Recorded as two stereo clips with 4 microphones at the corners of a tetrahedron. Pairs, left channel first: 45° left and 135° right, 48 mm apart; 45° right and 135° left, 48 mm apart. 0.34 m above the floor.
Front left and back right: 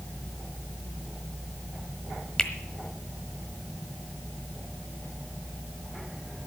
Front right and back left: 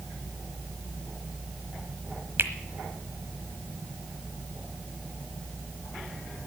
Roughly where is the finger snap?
Behind left.